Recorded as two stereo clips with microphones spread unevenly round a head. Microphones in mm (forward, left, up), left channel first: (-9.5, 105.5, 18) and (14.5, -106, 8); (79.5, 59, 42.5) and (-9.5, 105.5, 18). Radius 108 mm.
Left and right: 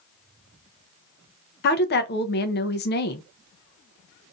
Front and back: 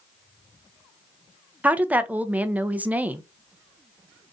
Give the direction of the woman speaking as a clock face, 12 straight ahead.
9 o'clock.